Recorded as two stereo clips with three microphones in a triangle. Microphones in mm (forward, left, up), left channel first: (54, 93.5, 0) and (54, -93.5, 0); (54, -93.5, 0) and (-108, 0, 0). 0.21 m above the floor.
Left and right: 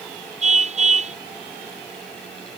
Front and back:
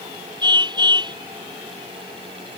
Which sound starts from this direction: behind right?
A car horn, at 0.4 s.